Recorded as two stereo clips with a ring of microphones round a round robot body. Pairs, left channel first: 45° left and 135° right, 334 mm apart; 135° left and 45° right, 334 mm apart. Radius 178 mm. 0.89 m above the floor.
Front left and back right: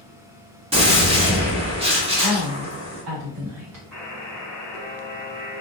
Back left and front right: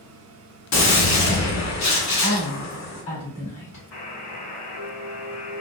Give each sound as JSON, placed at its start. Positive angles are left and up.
{"t": 0.7, "sound": "a gunshot", "azimuth_deg": 155, "distance_m": 1.0}
{"t": 2.2, "sound": "a woman speaking", "azimuth_deg": -155, "distance_m": 1.4}
{"t": 3.9, "sound": "a buzzer", "azimuth_deg": 130, "distance_m": 1.4}